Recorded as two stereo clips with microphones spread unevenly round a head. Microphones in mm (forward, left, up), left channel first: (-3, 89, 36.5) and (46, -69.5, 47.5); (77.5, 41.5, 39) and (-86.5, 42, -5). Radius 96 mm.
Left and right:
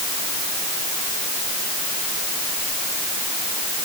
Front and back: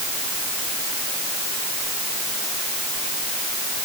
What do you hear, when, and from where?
Only background noise.